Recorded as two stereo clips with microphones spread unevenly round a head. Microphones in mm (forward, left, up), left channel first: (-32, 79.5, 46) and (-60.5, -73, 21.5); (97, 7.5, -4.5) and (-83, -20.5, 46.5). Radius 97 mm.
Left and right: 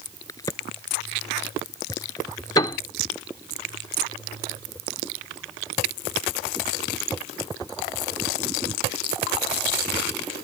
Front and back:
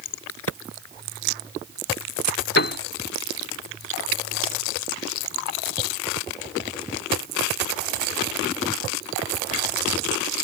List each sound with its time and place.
0.3 s a crack: 5° left
2.6 s a piano: 40° left